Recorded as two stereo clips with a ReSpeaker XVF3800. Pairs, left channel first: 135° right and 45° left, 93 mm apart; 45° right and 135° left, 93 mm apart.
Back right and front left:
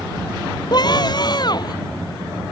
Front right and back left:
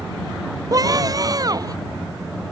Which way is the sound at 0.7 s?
175° right.